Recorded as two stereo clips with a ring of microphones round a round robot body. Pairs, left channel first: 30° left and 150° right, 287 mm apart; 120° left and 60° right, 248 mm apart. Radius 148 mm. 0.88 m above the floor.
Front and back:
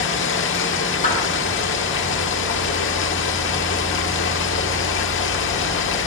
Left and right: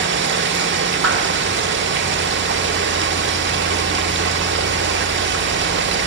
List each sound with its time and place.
0.0 s running water: 20° right, 1.2 m
1.0 s a clap: 35° right, 8.5 m